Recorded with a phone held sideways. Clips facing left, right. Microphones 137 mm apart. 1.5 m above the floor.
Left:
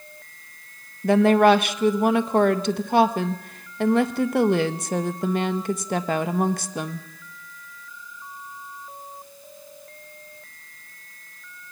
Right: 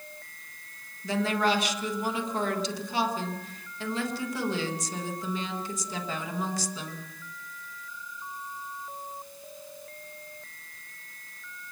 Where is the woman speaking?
60° left (ahead or behind), 1.4 m.